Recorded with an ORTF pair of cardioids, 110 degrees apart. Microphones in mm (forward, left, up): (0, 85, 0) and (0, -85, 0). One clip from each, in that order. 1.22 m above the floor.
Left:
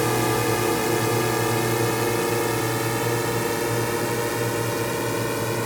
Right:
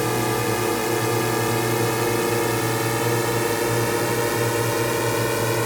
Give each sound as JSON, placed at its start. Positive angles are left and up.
{"t": 0.0, "sound": "a drone", "azimuth_deg": 5}